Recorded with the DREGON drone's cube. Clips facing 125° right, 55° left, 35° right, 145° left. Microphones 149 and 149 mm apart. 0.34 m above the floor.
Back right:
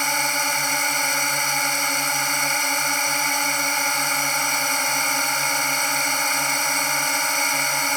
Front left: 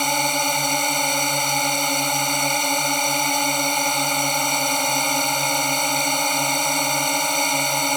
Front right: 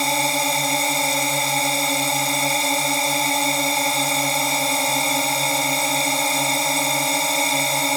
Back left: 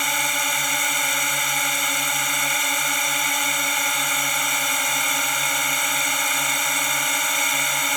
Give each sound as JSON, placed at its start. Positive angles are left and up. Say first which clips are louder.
{"t": 0.0, "sound": "a drone", "louder": "front left 4 dB, front right 6 dB", "azimuth_deg": 0}